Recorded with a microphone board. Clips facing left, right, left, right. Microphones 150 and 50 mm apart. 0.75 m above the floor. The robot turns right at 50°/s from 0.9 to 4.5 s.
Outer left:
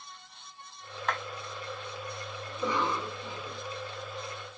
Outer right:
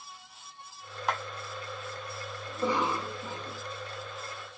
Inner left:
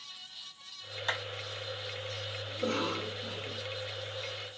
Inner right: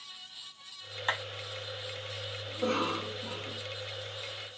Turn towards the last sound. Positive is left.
turn(degrees=-40)